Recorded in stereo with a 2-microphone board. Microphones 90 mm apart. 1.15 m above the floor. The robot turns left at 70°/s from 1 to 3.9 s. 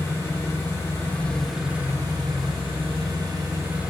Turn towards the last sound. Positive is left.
turn(degrees=-170)